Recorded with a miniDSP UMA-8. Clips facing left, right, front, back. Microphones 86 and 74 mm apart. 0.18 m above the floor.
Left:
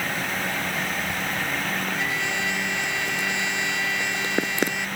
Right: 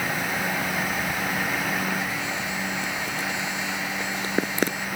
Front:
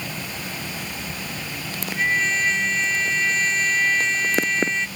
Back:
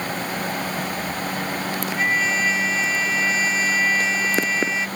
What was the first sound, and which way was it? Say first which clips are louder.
A trumpet: left 1 dB, even; 95° left.